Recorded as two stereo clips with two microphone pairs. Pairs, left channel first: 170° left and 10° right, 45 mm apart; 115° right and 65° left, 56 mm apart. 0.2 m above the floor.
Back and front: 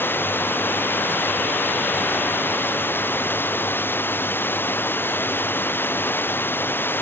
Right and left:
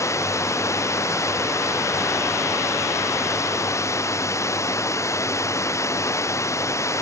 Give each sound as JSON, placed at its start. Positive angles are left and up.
{"t": 0.0, "sound": "running water", "azimuth_deg": -145}